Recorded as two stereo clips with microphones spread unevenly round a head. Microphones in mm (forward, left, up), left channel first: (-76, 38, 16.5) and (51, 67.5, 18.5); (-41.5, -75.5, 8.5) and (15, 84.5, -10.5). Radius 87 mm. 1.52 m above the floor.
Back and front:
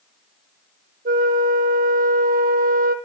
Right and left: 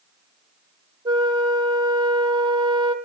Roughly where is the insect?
I don't hear an insect.